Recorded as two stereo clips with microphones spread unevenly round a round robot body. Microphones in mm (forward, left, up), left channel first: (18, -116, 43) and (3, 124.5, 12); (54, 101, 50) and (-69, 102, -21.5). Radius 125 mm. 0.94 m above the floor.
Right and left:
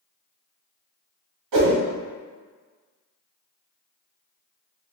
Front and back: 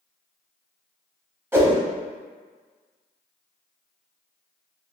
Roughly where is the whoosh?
Left.